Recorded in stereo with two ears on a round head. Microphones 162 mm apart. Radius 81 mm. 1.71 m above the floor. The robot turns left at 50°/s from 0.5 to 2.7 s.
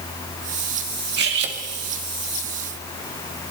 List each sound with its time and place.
1.2 s cutlery clinking: 65° right (ahead or behind), 2 m